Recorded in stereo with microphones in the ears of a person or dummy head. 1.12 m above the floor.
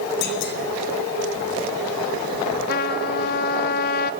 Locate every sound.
0.2 s a clunk: 55° left (ahead or behind), 2.5 m
2.7 s a trumpet: 55° left (ahead or behind), 1.2 m